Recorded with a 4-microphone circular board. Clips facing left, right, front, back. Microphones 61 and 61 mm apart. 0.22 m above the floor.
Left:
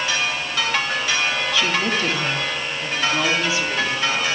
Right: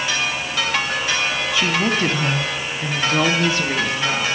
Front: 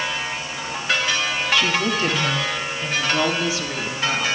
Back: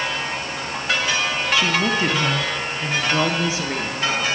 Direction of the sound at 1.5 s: 135° right.